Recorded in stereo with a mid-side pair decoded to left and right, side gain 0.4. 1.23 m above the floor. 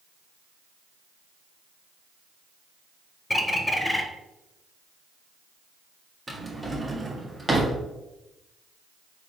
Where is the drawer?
20° right, 1.0 m.